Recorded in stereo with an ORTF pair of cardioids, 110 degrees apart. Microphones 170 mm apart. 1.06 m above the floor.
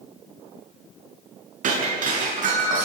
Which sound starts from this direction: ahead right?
Breaking glass, at 1.6 s.